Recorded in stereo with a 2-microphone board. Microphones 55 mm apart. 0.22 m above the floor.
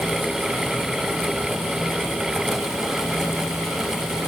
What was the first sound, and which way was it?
Only background noise.